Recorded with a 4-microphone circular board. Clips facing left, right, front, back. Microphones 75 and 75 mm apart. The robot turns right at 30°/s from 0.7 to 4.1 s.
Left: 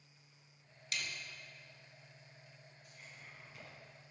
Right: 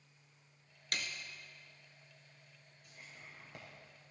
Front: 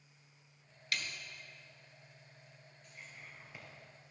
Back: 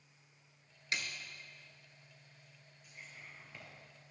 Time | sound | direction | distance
0.9 | a snare drum | 115° right | 1.4 m
2.8 | whispering | 100° right | 4.5 m